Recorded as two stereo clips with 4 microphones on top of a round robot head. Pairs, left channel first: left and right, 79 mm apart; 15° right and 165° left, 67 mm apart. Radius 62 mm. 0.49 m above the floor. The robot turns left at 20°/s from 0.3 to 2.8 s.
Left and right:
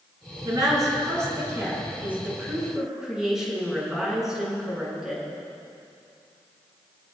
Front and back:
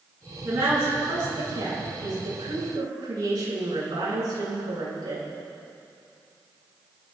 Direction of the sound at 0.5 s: 125° right.